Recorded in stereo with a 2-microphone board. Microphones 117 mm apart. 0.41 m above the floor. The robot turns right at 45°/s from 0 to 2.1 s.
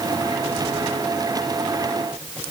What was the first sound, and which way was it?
Only background noise.